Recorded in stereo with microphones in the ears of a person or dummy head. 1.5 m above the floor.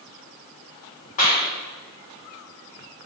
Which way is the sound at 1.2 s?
45° left (ahead or behind).